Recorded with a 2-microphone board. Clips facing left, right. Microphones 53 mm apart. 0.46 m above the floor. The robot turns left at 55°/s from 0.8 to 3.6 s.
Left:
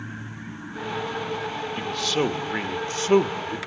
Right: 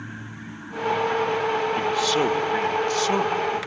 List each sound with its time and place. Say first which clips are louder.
1.8 s a man speaking: right 4 dB; 155° right, 1.1 m; by 3.6 s 105° left, 1.1 m